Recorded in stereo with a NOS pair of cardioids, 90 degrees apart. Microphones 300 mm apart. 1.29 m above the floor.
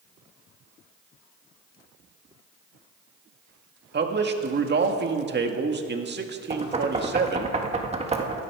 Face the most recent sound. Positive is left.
turn(degrees=-20)